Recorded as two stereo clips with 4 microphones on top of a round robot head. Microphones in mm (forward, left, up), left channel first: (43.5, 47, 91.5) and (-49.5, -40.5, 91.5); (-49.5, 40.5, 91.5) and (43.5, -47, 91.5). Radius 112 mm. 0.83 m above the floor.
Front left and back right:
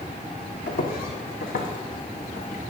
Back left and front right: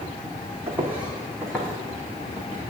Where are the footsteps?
25° left, 1.9 m; by 2.7 s 70° left, 3.5 m.